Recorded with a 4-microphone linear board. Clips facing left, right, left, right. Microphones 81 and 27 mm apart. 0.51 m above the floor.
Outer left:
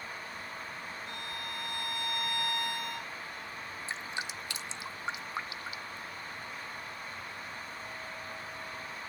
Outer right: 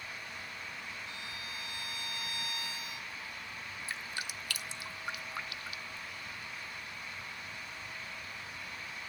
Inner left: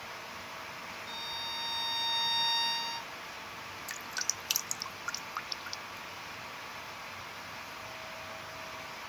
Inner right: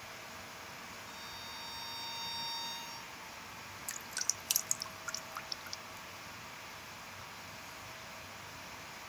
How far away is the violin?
About 1.4 m.